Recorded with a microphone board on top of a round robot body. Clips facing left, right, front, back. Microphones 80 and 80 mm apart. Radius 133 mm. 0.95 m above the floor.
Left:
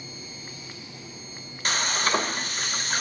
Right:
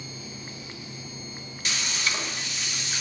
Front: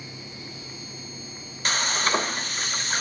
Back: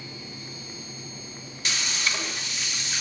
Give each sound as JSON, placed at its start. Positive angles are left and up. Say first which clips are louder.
{"t": 1.6, "sound": "frying", "louder": "left 6 dB, front 6 dB", "azimuth_deg": 45, "distance_m": 1.4}